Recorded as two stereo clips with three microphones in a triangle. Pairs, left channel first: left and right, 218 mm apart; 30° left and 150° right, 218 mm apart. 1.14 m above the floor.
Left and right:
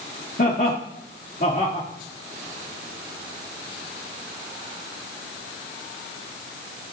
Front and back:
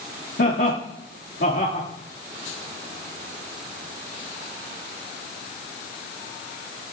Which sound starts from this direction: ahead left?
Laughter, at 0.4 s.